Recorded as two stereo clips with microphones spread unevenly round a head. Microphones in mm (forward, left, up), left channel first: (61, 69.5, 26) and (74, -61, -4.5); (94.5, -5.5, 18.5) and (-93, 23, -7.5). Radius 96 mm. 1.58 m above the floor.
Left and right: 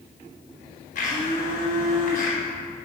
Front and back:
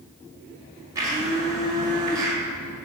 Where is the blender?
95° left, 1.7 m.